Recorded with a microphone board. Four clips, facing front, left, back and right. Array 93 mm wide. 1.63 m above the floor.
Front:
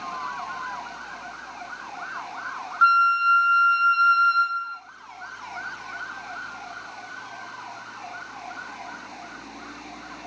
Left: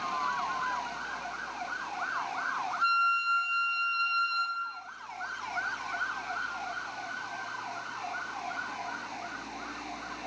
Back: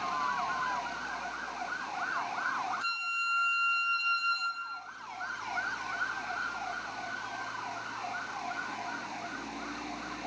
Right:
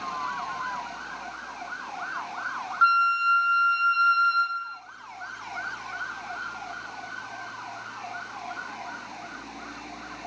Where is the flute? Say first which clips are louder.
Right 8 dB, front 18 dB; 35° right, 0.6 m.